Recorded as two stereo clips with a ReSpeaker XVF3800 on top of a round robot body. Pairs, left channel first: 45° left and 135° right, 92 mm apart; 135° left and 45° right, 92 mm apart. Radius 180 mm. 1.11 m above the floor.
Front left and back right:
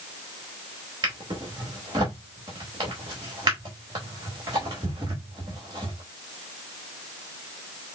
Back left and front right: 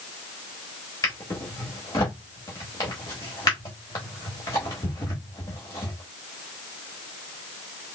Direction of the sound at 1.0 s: Straight behind.